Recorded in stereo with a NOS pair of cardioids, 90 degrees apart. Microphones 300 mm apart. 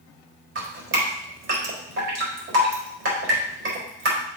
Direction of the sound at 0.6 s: 45° right.